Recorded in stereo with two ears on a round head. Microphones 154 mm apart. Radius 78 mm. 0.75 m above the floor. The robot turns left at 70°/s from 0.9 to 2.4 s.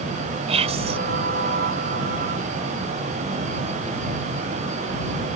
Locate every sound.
0.5 s whispering: 40° right (ahead or behind); by 1.0 s 30° right (ahead or behind)